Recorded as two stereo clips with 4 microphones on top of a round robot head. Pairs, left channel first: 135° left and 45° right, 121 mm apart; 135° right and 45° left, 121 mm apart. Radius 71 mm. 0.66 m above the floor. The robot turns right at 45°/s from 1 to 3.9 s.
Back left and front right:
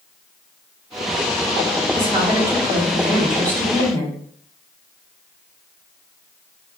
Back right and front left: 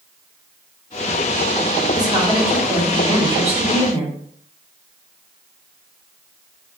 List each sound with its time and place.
1.9 s a woman speaking: 10° right, 1.4 m; by 4.2 s 75° left, 1.4 m